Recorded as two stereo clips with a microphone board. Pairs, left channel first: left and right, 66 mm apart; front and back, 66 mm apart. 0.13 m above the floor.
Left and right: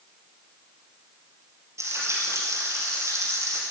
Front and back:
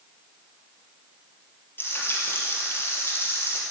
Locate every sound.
1.8 s frying: 55° right, 3 m